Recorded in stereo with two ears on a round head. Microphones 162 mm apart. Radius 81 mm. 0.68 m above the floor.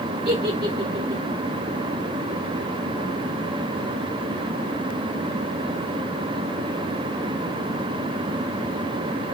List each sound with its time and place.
0.2 s a giggle: 25° right (ahead or behind), 4 m